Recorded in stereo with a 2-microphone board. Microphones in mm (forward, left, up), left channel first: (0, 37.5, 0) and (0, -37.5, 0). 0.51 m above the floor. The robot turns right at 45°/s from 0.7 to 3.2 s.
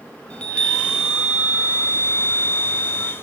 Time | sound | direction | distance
0.3 | a chime | 165° left | 0.6 m